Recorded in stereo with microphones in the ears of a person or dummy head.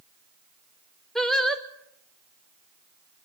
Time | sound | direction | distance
1.1 | singing | centre (ahead or behind) | 1.2 m